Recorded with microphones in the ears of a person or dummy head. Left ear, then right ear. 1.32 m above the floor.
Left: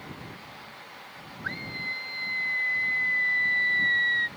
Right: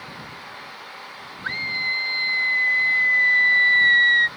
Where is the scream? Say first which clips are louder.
Right 9 dB; 25° right (ahead or behind).